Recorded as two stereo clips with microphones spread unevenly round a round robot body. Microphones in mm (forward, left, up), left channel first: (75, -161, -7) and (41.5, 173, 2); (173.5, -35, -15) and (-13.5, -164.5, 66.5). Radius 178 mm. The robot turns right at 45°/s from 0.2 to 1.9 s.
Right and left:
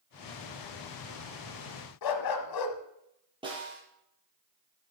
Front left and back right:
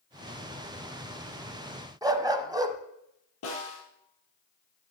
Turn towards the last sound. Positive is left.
turn(degrees=20)